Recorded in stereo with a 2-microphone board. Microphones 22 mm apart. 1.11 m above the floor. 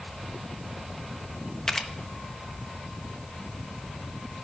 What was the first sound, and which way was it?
A camera shutter, 25° left (ahead or behind).